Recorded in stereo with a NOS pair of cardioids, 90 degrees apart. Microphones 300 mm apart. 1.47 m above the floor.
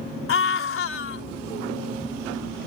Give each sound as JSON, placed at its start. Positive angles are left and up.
{"t": 0.3, "sound": "a scream", "azimuth_deg": 45}